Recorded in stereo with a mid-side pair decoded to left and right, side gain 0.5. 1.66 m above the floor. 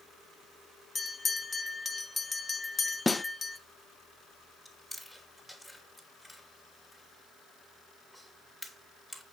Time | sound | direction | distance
0.9 | a bell | 25° left | 1.1 m
3.1 | a snare drum | 15° left | 0.5 m
4.7 | chewing | straight ahead | 4 m